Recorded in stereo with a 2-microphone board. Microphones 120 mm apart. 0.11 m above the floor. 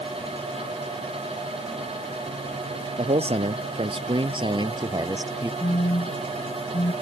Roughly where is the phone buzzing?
Left.